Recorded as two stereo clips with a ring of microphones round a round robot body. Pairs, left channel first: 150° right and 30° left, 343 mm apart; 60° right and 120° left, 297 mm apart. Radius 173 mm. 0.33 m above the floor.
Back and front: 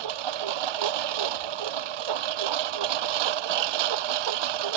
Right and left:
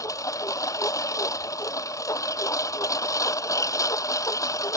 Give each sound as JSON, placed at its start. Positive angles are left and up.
{"t": 0.0, "sound": "a lawn mower", "azimuth_deg": 20}